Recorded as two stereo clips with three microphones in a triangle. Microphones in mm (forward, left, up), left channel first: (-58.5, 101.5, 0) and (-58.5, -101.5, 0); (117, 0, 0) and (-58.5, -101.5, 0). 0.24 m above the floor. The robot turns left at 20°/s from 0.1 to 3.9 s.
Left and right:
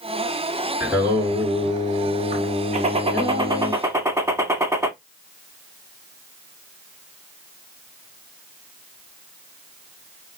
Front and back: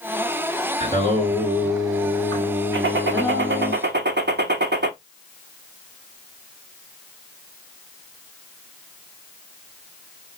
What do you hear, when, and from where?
0.8 s singing: 10° right, 2.5 m; by 3.7 s 70° right, 2.5 m
2.7 s a gunshot: 145° right, 0.6 m; by 4.9 s 165° right, 0.6 m